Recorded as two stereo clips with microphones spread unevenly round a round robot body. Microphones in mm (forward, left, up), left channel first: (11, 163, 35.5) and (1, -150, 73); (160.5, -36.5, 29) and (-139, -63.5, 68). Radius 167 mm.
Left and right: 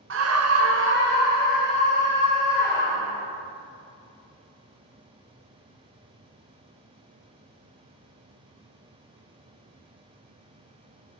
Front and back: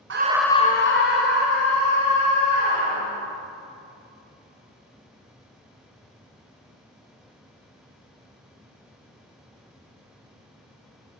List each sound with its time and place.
0.1 s a scream: 135° right, 0.7 m; by 3.2 s 20° right, 4.5 m